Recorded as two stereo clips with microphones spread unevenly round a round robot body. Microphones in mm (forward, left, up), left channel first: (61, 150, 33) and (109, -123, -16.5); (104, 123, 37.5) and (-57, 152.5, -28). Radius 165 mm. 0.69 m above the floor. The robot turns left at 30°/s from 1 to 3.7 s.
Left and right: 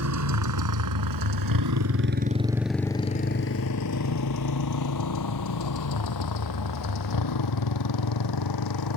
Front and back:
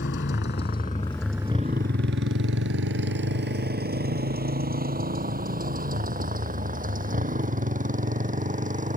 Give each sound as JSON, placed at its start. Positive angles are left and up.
{"t": 0.0, "sound": "a motorcycle", "azimuth_deg": -50}